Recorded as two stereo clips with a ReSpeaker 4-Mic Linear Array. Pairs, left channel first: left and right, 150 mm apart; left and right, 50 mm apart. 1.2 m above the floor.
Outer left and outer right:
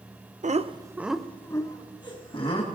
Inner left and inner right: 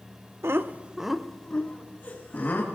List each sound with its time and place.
0.4 s laughter: 55° right (ahead or behind), 0.7 m; by 2.8 s 40° left (ahead or behind), 1.9 m